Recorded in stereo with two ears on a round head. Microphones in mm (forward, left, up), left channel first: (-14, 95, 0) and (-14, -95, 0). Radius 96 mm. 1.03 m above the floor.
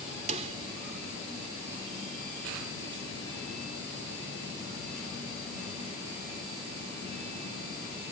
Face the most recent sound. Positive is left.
turn(degrees=-35)  # may be behind; listen again after turning